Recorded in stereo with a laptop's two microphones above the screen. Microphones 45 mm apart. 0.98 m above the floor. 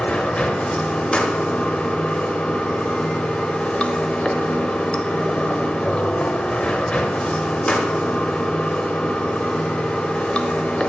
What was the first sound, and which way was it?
Running water, 25° left (ahead or behind).